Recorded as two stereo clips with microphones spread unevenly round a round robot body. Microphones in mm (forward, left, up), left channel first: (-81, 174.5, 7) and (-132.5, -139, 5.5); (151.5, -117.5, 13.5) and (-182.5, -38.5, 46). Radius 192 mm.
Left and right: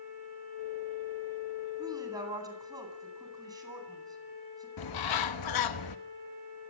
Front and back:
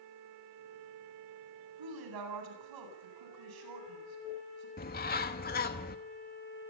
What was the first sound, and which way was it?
A woman speaking, 175° right.